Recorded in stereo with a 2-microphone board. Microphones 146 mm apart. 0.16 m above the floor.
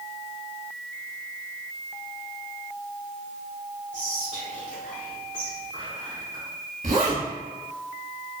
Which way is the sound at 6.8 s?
70° right (ahead or behind).